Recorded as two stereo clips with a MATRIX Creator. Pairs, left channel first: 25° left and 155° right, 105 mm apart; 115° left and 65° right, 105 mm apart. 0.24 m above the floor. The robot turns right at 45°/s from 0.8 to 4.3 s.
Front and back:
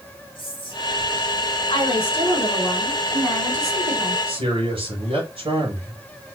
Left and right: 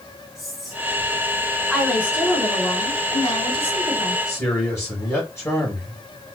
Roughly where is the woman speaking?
Ahead.